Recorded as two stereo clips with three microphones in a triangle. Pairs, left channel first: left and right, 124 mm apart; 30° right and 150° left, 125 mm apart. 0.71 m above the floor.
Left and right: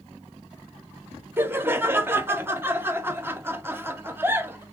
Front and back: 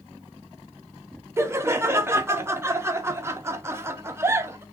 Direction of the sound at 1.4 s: 150° right.